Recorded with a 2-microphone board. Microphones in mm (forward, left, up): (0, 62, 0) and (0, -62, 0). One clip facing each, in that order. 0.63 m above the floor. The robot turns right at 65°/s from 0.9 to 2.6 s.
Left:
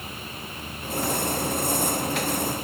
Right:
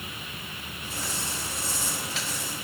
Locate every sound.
Only background noise.